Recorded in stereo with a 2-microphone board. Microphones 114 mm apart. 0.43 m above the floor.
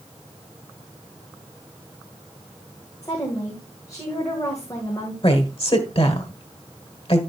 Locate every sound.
3.0 s a woman speaking: 30° left (ahead or behind), 2 m
5.2 s a woman speaking: 55° left (ahead or behind), 1.6 m